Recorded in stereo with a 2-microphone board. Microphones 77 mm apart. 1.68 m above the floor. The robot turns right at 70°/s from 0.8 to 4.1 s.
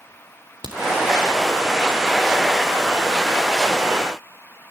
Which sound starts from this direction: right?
A crack, at 0.6 s.